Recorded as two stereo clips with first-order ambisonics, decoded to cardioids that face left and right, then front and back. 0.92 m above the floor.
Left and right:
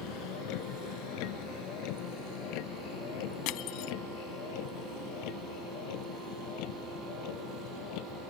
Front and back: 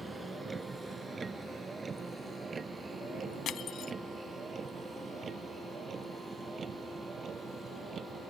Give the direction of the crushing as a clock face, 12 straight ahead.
10 o'clock.